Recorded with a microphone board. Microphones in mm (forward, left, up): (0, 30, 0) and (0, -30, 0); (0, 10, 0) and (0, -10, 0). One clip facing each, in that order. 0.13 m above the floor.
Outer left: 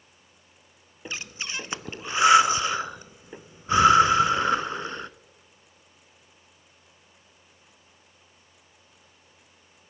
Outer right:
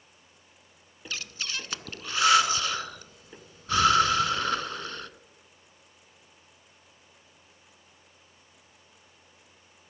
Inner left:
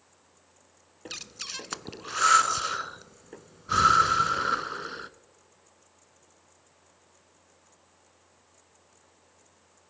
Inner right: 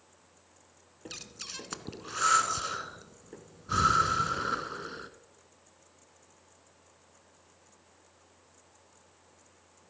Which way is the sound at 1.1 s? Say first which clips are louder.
Outer left 2 dB, inner left 4 dB; 25° left (ahead or behind).